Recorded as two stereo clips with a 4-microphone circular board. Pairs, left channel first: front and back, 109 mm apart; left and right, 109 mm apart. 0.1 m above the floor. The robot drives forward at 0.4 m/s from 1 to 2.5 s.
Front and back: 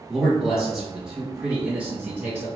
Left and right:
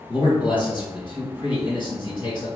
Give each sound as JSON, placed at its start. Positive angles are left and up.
{"t": 0.1, "sound": "a man speaking", "azimuth_deg": 90, "distance_m": 1.9}